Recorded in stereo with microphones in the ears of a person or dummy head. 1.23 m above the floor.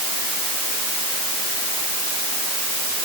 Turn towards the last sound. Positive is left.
No sound to turn to.